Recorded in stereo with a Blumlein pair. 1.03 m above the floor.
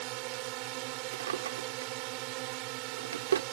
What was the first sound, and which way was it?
A drone, 45° right.